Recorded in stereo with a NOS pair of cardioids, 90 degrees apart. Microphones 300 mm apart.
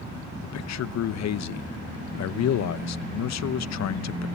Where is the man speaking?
60° left, 1.0 m.